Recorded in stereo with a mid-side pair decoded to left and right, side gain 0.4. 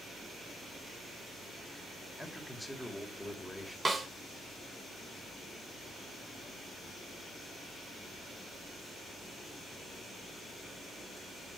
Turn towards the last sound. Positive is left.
turn(degrees=-35)